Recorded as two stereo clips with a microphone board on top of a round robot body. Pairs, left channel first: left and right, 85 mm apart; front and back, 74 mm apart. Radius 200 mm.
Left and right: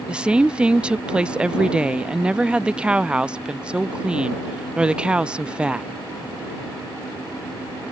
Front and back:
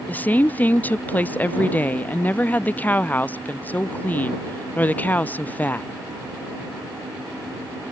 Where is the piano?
No piano in this recording.